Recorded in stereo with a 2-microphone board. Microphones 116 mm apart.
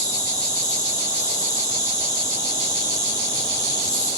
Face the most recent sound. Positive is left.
turn(degrees=30)  # may be behind; listen again after turning